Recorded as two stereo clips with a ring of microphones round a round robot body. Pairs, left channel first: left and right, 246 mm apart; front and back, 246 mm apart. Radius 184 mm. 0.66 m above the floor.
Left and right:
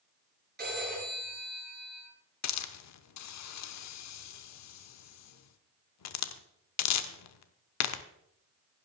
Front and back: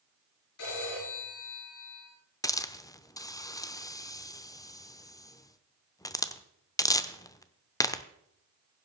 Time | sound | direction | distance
0.6 | a phone ringing | 40° right | 8 m
2.4 | a hiss | 80° left | 0.8 m